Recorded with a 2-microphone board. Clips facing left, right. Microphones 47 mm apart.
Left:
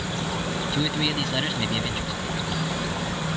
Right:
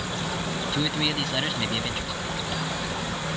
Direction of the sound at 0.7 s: Centre (ahead or behind).